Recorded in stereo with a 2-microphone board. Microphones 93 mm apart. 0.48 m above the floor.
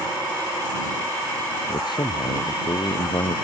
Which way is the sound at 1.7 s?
55° left (ahead or behind).